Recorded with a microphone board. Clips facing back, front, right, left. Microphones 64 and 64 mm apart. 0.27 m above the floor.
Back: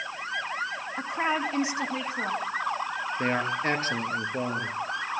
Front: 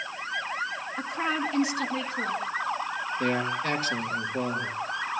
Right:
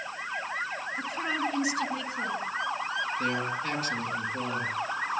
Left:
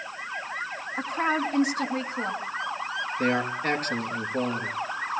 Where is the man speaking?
125° left, 3.5 m.